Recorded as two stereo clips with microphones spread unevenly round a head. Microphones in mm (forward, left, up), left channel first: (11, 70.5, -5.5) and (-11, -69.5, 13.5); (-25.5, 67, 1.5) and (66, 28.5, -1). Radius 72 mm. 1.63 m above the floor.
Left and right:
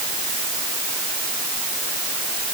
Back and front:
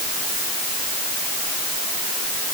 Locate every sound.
Only background noise.